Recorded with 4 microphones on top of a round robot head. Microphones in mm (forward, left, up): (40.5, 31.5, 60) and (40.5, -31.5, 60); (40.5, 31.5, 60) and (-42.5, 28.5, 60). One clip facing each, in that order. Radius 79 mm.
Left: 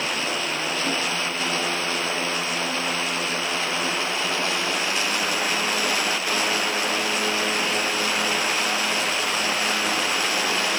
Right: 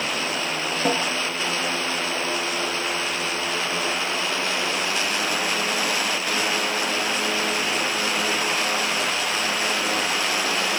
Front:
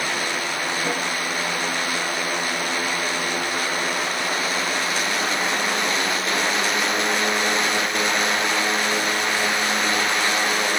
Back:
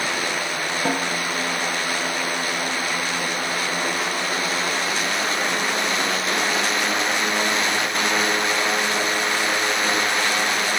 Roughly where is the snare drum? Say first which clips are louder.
Right 6 dB, back 5 dB; behind right.